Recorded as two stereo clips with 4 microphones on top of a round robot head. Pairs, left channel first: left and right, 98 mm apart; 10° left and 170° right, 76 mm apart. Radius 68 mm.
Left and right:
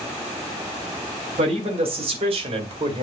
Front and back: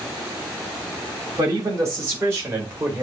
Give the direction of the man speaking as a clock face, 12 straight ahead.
4 o'clock.